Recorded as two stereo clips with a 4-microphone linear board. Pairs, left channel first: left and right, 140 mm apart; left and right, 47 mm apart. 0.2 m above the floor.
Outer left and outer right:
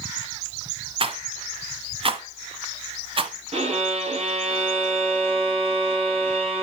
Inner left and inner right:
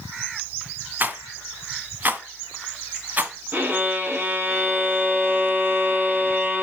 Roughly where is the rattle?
Right.